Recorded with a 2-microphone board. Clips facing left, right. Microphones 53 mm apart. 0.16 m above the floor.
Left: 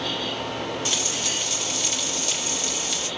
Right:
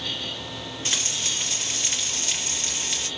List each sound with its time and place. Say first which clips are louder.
0.8 s frying: left 2 dB; 35° right (ahead or behind), 2.5 m